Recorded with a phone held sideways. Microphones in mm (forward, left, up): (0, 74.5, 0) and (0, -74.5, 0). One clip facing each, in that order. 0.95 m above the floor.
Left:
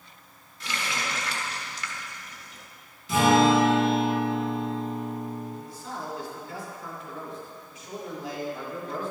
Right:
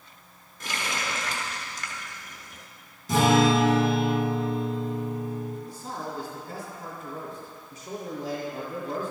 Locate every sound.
0.6 s a running tap: 50° right (ahead or behind), 1.1 m
3.1 s a guitar: 45° right (ahead or behind), 3.5 m
5.7 s a man speaking: 55° right (ahead or behind), 3 m